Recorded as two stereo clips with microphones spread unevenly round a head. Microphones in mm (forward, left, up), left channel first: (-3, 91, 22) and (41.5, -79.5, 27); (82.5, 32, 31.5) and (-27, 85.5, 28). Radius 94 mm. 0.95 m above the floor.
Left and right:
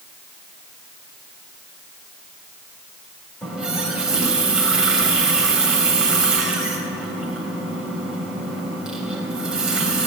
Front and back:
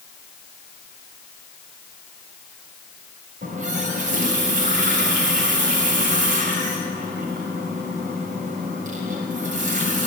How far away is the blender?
I don't hear a blender.